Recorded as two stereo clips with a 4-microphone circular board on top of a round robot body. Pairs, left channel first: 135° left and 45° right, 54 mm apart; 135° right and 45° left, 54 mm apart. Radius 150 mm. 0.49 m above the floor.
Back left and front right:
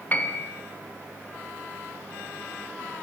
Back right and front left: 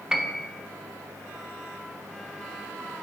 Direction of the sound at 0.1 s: 120° left.